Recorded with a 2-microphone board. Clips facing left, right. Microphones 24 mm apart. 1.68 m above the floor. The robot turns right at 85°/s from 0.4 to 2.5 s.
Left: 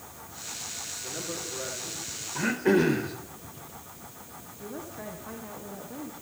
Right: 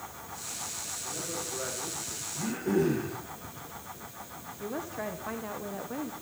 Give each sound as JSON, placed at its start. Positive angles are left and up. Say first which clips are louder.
{"t": 1.0, "sound": "a man speaking", "louder": "left 1 dB", "azimuth_deg": 145, "distance_m": 6.5}
{"t": 2.4, "sound": "throat clearing", "louder": "left 5 dB", "side_deg": 60, "distance_m": 3.0}
{"t": 4.6, "sound": "a woman speaking", "louder": "right 4 dB", "side_deg": -25, "distance_m": 1.5}